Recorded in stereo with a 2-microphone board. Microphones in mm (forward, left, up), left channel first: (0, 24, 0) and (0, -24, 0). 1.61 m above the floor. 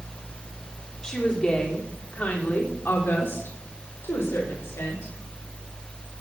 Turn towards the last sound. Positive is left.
turn(degrees=70)  # may be behind; listen again after turning